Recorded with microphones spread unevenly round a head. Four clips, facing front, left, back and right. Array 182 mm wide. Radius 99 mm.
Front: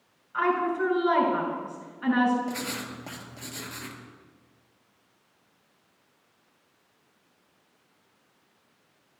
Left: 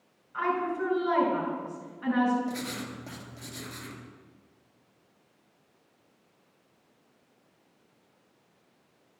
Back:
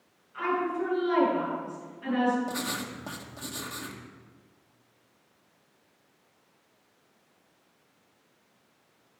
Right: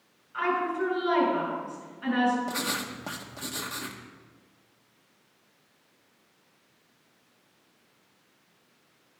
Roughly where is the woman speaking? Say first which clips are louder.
Right 1 dB, front 4 dB; ahead.